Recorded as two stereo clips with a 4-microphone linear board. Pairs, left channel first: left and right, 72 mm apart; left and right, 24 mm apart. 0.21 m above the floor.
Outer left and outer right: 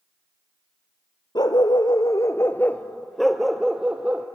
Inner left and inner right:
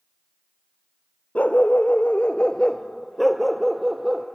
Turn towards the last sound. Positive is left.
turn(degrees=-20)  # may be behind; listen again after turning